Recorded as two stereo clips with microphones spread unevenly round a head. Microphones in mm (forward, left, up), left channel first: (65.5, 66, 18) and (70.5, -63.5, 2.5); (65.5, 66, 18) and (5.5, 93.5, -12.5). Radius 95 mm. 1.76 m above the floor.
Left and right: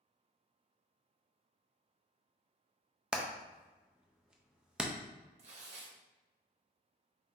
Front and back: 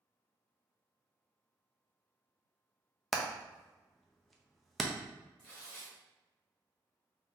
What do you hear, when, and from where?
3.1 s hammering: straight ahead, 0.6 m
5.4 s tearing paper: 70° right, 0.9 m